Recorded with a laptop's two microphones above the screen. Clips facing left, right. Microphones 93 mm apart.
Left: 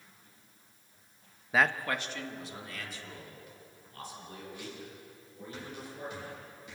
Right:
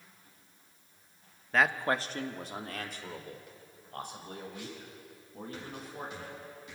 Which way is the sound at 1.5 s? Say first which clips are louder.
Right 1 dB; 10° left (ahead or behind).